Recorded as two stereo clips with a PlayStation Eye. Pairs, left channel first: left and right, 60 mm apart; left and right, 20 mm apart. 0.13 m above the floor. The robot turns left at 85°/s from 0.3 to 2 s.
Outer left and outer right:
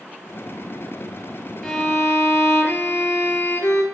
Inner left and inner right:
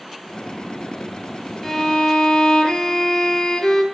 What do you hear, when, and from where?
1.6 s a violin: 170° left, 0.6 m; by 3.8 s 140° left, 0.6 m